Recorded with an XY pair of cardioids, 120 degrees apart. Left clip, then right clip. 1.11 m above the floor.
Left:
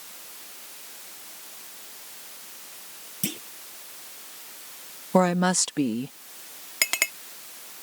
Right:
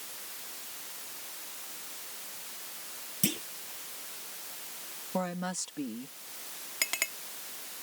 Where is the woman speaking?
70° left.